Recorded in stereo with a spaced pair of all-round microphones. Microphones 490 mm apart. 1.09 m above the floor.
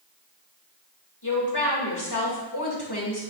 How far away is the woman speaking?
About 1.9 m.